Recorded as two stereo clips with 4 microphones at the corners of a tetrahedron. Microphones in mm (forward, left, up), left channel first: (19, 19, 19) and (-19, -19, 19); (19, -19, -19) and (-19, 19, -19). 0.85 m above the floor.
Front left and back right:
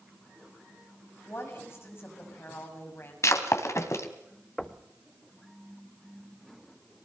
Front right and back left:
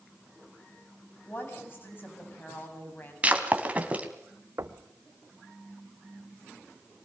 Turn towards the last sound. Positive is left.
turn(degrees=125)